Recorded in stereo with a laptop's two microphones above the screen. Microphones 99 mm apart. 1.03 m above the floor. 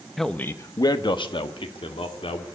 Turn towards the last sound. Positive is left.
turn(degrees=65)  # may be behind; listen again after turning